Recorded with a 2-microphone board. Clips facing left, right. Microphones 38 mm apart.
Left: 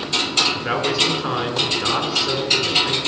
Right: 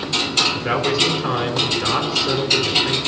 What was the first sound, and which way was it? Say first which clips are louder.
A man speaking: right 1 dB; 5° left (ahead or behind).